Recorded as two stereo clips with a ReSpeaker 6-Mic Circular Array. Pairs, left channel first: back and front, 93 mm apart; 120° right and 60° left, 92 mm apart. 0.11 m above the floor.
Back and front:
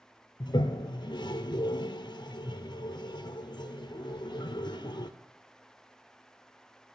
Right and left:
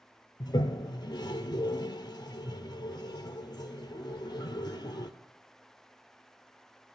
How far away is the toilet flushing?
About 0.5 m.